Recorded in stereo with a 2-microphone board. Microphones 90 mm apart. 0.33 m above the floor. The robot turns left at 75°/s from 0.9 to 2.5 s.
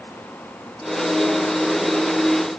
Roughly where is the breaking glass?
I don't hear breaking glass.